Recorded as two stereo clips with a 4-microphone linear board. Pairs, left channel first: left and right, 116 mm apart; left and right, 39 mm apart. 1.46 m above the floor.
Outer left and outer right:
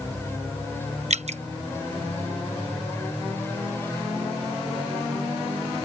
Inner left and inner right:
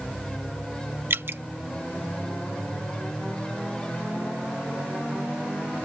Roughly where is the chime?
I don't hear a chime.